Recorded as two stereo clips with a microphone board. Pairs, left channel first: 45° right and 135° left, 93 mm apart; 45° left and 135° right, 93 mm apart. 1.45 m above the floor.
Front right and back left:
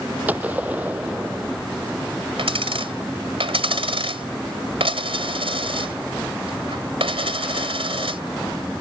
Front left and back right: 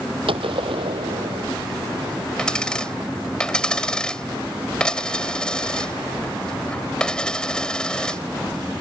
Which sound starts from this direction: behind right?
A gunshot, at 0.3 s.